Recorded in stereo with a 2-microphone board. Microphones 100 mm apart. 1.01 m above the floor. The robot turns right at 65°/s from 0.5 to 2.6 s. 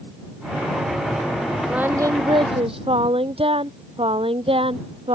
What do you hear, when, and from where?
1.7 s singing: 170° right; by 5.2 s 110° right